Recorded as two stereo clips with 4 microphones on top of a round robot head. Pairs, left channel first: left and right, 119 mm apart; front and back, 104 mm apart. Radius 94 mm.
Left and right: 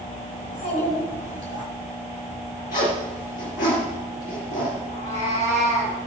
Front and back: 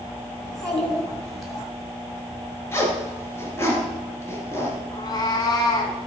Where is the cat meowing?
50° left, 2 m.